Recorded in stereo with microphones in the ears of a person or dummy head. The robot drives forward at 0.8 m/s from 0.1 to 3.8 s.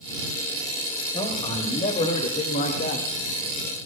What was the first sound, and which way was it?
A man speaking, 30° left (ahead or behind).